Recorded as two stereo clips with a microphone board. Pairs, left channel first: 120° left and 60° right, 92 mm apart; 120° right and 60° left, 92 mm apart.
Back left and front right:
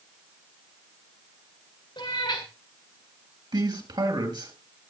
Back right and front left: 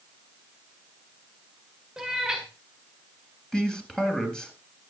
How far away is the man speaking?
About 4 m.